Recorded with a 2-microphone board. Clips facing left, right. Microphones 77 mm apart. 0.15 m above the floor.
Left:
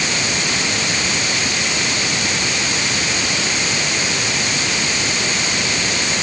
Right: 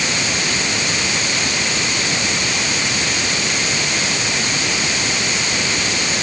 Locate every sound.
Only background noise.